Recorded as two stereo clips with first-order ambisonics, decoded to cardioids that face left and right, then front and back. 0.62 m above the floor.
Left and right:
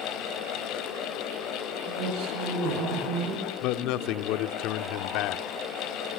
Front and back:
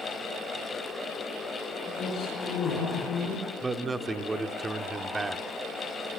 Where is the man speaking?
105° left, 1.2 m.